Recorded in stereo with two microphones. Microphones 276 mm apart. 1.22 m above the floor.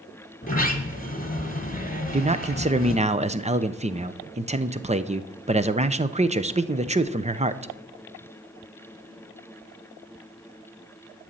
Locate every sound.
0.4 s a sliding door: 30° left (ahead or behind), 1.8 m
2.1 s a man speaking: 25° right (ahead or behind), 0.7 m